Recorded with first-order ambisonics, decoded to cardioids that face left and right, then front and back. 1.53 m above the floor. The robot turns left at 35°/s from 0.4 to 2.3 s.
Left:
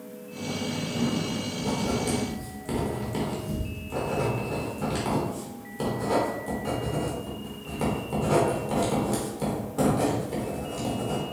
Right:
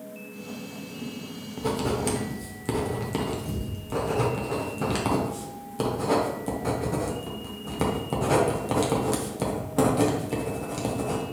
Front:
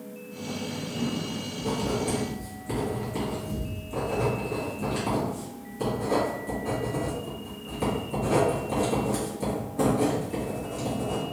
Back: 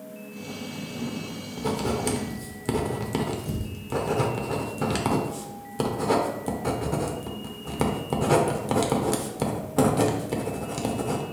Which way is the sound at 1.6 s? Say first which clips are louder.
Right 3 dB, back 2 dB; 130° right.